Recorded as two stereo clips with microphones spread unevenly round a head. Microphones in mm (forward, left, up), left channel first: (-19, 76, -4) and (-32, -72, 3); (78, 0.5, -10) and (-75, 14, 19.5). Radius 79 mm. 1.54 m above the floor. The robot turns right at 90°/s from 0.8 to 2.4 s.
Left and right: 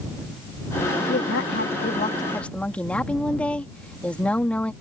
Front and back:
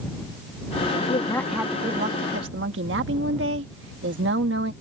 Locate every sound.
1.0 s a woman speaking: 40° left; by 4.7 s 165° left